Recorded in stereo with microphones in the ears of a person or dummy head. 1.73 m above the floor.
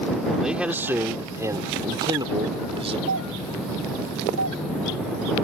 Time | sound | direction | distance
0.4 | a man speaking | centre (ahead or behind) | ?
3.1 | a doorbell | 85° right | ?